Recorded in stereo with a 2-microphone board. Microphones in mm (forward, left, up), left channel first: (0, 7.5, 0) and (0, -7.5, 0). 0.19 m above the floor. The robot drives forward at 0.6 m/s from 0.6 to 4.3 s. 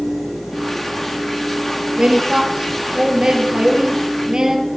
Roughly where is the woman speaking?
Right.